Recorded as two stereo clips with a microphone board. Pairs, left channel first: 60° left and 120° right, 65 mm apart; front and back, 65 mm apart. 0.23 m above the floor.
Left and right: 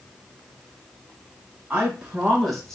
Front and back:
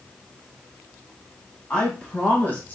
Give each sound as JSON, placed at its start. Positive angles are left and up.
{"t": 1.7, "sound": "a woman speaking", "azimuth_deg": -60, "distance_m": 1.4}